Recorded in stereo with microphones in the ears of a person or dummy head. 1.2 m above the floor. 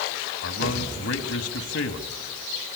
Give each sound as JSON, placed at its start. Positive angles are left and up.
{"t": 0.4, "sound": "a man speaking", "side_deg": 70, "distance_m": 2.5}